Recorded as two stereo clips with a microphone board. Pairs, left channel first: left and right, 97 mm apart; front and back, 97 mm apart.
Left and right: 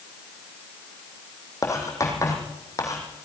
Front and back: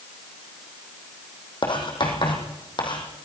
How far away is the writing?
About 4.5 m.